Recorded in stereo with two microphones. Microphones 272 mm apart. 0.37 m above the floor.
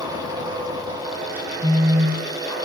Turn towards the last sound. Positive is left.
turn(degrees=-25)  # may be behind; listen again after turning